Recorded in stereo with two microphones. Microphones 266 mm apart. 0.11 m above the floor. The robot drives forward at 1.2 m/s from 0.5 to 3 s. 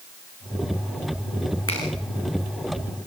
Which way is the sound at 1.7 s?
55° left (ahead or behind).